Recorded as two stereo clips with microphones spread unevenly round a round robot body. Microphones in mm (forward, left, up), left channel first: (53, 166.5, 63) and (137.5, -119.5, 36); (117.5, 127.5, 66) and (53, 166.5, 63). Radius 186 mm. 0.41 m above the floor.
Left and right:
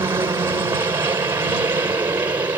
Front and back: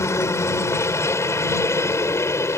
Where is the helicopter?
Straight ahead; by 2.6 s 5° left.